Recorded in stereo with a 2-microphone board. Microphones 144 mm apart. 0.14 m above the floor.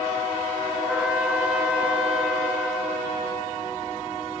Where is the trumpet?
5° right (ahead or behind), 2.5 m.